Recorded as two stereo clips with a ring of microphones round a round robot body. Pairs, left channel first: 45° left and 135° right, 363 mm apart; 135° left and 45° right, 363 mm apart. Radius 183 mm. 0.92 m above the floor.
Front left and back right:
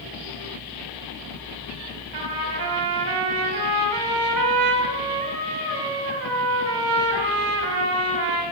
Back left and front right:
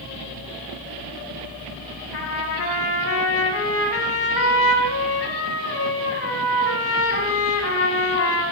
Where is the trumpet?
170° right, 5 m.